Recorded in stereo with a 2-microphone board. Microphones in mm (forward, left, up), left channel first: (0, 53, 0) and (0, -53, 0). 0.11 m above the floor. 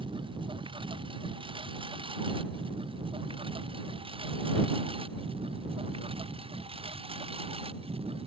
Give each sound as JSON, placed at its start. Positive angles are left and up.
{"t": 0.0, "sound": "a lawn mower", "side_deg": -55}